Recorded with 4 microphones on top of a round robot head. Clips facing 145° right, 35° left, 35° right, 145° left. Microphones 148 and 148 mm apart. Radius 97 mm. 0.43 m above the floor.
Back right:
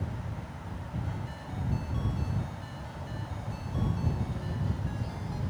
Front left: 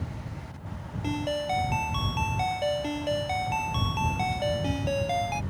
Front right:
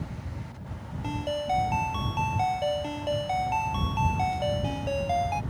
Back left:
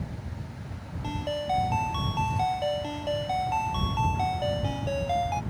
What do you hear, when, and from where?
1.0 s a ringtone: 50° left